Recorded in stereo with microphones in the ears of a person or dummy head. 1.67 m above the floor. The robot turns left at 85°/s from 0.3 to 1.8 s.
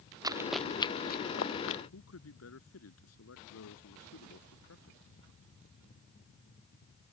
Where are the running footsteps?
20° right (ahead or behind); by 1.8 s 60° left (ahead or behind).